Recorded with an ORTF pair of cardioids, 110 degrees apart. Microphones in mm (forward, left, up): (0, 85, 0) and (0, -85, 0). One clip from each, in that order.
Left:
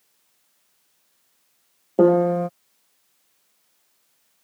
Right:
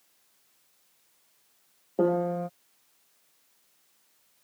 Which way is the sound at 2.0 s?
35° left.